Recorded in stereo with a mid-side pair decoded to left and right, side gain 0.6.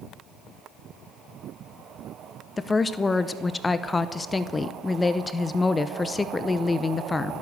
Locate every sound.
2.6 s a woman speaking: 15° left, 0.8 m